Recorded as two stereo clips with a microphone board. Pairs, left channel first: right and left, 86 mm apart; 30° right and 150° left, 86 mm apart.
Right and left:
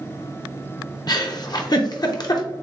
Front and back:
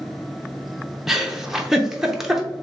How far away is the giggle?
About 0.6 m.